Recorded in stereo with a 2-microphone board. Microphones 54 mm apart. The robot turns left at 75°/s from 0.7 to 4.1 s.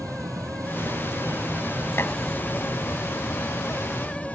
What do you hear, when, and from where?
0.0 s a vehicle: 75° right; by 4.4 s 30° left
2.0 s dishes clattering: 45° left (ahead or behind); by 2.1 s 35° left (ahead or behind)